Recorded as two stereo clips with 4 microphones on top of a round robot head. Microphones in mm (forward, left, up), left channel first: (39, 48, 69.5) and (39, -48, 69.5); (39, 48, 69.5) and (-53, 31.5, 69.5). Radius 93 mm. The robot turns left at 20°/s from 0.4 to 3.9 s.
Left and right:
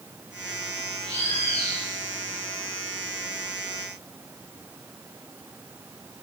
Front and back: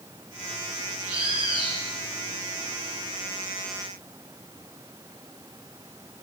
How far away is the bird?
About 5.5 m.